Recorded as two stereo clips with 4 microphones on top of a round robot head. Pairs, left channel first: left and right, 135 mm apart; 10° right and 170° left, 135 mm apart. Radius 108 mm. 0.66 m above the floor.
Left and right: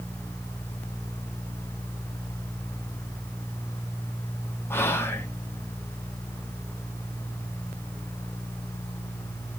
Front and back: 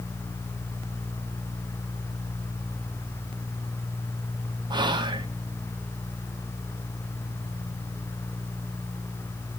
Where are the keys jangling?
I don't hear keys jangling.